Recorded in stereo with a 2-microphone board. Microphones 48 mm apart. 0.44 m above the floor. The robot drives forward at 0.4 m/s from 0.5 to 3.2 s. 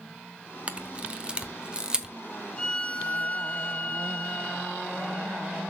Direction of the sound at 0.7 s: 25° right (ahead or behind).